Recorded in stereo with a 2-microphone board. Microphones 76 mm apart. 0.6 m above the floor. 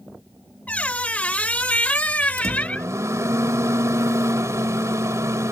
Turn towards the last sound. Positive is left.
turn(degrees=-40)  # may be behind; listen again after turning